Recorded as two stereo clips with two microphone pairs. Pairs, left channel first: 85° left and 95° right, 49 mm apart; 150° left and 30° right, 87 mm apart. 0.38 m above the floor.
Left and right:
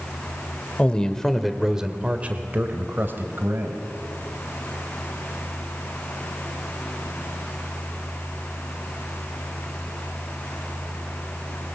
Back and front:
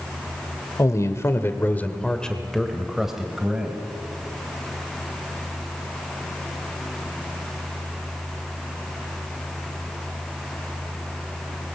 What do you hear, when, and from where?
0.8 s a man speaking: 140° left, 1.8 m; by 3.8 s 105° right, 3 m